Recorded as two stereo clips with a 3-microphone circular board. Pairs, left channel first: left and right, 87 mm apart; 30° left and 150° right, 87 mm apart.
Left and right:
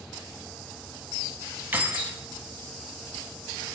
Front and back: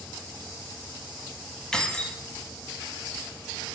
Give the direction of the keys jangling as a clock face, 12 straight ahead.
1 o'clock.